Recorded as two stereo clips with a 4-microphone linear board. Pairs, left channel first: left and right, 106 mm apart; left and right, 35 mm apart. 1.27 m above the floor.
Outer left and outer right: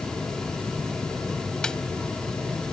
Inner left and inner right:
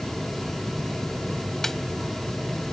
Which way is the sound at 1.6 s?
5° left (ahead or behind).